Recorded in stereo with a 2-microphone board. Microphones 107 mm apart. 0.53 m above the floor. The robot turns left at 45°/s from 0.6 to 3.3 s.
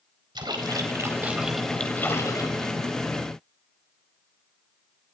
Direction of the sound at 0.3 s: 135° right.